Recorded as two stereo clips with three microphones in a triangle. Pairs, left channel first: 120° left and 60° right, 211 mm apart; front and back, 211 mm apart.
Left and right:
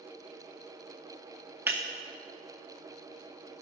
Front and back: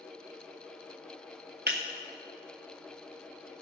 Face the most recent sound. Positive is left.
turn(degrees=-140)